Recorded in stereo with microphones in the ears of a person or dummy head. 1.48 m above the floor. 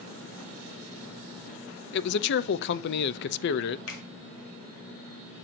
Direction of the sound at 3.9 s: 85° left.